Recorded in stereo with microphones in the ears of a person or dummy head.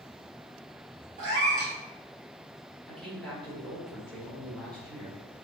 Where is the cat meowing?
40° right (ahead or behind), 1.4 m.